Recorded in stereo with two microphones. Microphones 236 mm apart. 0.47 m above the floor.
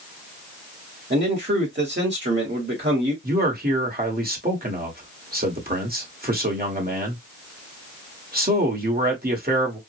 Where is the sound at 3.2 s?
40° right (ahead or behind), 1.3 m.